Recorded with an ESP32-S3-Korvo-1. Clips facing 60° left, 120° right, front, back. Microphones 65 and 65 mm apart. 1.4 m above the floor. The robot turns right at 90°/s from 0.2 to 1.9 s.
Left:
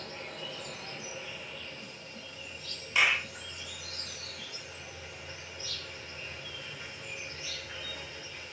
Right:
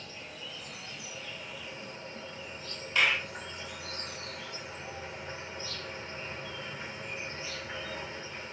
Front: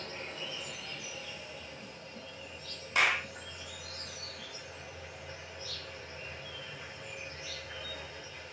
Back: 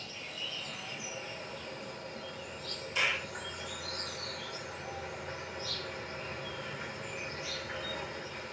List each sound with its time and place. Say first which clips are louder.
0.0 s an insect: left 3 dB, front 2 dB; 35° left, 0.9 m; by 8.5 s 170° right, 0.9 m
3.0 s a clap: even, front 4 dB; 20° right, 0.9 m